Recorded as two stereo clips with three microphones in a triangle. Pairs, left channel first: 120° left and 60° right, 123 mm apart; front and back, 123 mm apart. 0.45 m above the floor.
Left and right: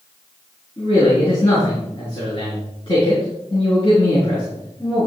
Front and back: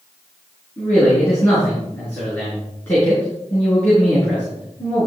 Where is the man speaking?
75° left, 7 m.